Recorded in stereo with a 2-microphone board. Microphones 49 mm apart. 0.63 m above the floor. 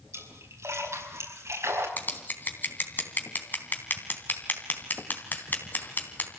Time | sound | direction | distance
0.1 | a splash | 80° right | 5 m
2.0 | scissors | 40° left (ahead or behind) | 3 m